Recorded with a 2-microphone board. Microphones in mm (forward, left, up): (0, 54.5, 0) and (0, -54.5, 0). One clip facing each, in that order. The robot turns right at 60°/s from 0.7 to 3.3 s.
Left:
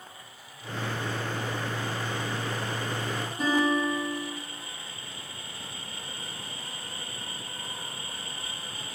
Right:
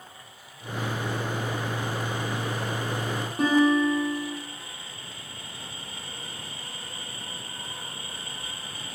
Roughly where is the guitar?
Right.